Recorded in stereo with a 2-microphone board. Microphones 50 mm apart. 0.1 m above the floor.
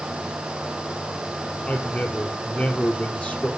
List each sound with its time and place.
1.7 s a man speaking: 30° left (ahead or behind), 3 m